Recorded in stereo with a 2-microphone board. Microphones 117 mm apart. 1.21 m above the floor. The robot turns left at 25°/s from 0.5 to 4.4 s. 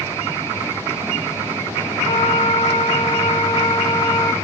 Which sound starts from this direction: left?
A flute, at 2.0 s.